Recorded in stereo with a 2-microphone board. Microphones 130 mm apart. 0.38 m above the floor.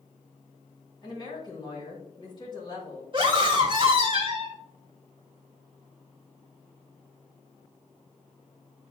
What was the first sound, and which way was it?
A woman speaking, 35° left (ahead or behind).